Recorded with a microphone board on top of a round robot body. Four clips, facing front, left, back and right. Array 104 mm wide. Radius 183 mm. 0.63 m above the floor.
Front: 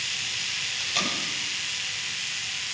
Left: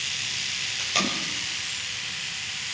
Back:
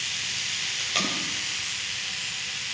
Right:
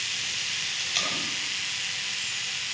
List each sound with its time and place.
0.8 s tape being pulled: 120° left, 4 m